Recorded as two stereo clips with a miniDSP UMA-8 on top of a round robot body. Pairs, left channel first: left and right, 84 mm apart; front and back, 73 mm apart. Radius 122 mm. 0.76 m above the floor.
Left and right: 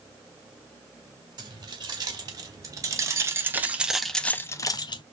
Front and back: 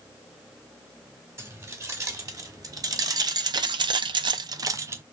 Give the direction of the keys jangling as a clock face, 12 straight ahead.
4 o'clock.